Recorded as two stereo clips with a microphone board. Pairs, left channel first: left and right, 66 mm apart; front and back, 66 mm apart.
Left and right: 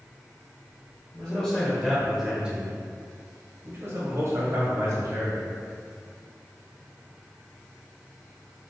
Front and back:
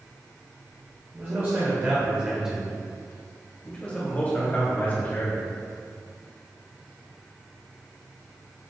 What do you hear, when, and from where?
1.1 s a man speaking: 155° left, 1.2 m; by 5.5 s 55° right, 2 m